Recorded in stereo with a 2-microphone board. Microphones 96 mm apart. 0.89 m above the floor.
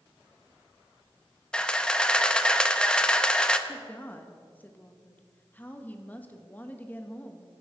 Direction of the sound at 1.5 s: 10° left (ahead or behind).